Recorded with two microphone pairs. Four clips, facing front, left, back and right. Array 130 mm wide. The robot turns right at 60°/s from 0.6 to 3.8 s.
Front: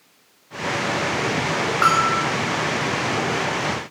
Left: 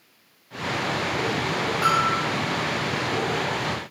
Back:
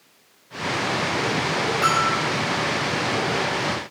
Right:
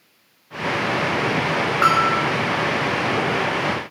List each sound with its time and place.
1.8 s a bell: 50° right, 5 m; by 2.2 s 30° right, 5 m